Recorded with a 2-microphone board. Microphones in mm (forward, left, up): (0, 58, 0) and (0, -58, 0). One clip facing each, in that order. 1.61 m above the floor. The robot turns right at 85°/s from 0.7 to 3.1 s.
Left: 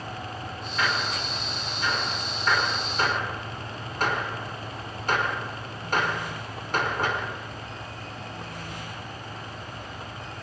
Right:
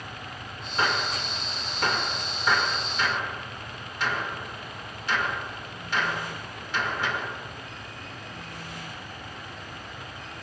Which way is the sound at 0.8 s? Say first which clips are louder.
Right 1 dB; 30° right (ahead or behind).